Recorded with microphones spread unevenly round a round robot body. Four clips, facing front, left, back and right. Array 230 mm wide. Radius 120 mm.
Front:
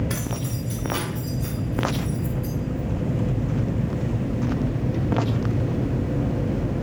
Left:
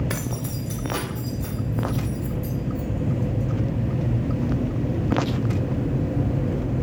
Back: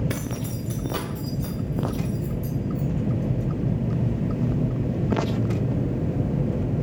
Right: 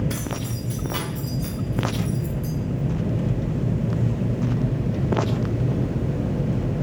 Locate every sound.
0.1 s keys jangling: 115° left, 0.7 m; by 2.5 s 170° left, 1.5 m